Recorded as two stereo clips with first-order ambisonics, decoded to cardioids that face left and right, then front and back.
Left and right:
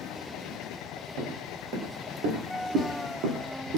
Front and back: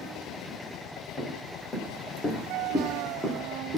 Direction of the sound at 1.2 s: 60° right.